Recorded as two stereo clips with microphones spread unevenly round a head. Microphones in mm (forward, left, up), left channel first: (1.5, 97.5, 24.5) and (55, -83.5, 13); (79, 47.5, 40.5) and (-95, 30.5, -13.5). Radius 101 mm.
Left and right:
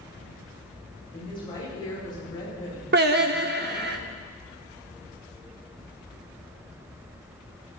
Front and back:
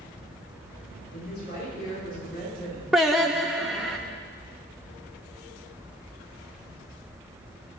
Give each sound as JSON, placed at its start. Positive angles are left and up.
{"t": 1.1, "sound": "a woman speaking", "azimuth_deg": 40, "distance_m": 9.5}
{"t": 2.9, "sound": "singing", "azimuth_deg": -65, "distance_m": 0.8}